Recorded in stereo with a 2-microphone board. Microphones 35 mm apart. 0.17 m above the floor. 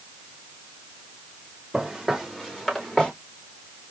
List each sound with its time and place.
1.7 s footsteps: 10° right (ahead or behind), 3 m; by 3.1 s 25° left (ahead or behind), 3 m